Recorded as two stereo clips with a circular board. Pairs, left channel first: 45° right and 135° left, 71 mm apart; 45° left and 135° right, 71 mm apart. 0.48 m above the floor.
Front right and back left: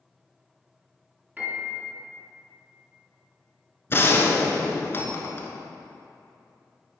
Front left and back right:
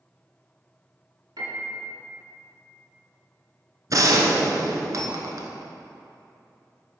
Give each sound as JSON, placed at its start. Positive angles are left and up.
{"t": 1.4, "sound": "a piano", "azimuth_deg": -160, "distance_m": 2.5}
{"t": 3.9, "sound": "a gunshot", "azimuth_deg": -100, "distance_m": 1.1}